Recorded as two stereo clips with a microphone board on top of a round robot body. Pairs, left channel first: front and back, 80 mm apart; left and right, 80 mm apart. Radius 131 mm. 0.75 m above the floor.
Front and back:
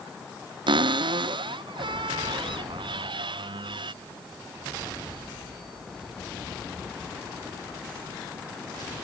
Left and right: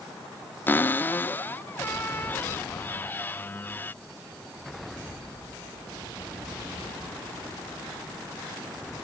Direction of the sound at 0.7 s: 155° left.